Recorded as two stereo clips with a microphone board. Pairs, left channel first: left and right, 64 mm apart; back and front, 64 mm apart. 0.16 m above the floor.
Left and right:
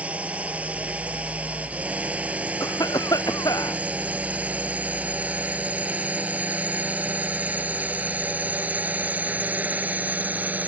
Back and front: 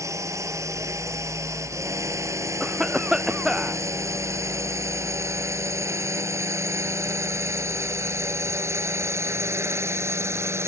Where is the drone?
25° right; by 10.7 s 30° right.